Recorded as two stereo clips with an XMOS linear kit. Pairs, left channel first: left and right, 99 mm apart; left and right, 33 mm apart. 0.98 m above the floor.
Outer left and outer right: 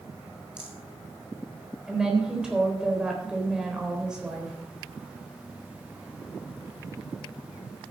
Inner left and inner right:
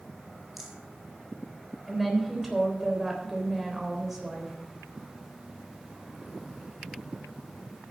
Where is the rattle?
10° right (ahead or behind), 2.5 m.